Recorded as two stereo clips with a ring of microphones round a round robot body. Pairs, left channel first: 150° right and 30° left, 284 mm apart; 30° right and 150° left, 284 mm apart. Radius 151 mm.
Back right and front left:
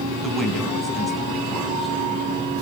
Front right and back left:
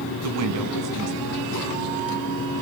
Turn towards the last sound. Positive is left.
turn(degrees=120)